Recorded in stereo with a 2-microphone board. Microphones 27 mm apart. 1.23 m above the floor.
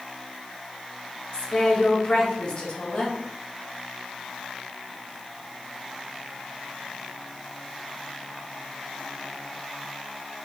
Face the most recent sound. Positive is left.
turn(degrees=30)  # may be behind; listen again after turning